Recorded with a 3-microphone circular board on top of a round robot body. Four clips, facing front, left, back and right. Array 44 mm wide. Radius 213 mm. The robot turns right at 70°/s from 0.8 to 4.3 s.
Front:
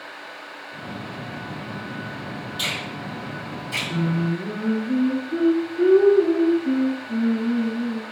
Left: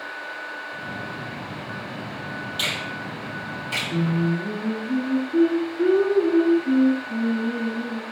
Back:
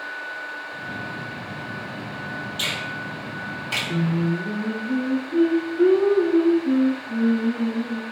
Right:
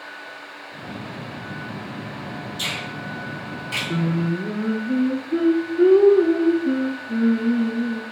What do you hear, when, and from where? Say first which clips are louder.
2.6 s a finger snap: left 1 dB, even; 100° left, 2.5 m; by 3.8 s 175° right, 2.5 m
3.9 s singing: even, even; 105° right, 0.6 m; by 8.0 s 80° right, 0.6 m